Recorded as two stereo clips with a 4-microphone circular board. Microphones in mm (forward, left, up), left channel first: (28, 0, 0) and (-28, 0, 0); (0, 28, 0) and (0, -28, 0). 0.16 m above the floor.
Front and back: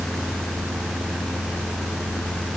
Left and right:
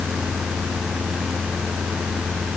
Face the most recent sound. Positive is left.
No sound to turn to.